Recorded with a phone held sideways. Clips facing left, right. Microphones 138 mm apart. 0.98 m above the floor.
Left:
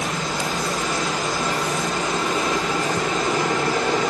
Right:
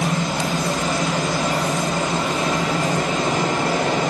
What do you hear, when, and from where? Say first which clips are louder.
0.0 s a machine running: right 3 dB; 80° right, 1.9 m